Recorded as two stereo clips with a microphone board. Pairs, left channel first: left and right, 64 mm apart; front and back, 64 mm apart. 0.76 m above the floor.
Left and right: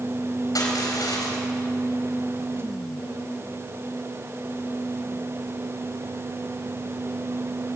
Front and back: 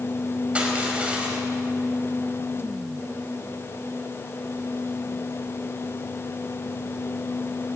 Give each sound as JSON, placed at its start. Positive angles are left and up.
{"t": 0.6, "sound": "crushing", "azimuth_deg": 110, "distance_m": 4.0}